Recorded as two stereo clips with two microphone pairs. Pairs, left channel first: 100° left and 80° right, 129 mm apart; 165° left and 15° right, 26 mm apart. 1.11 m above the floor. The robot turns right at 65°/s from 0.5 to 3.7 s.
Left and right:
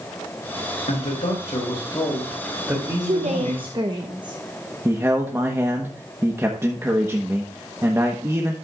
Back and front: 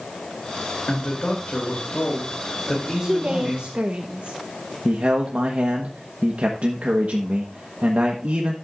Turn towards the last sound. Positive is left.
turn(degrees=-10)